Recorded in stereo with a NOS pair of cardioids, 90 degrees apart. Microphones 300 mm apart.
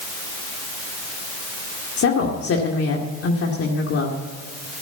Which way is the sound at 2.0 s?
50° left.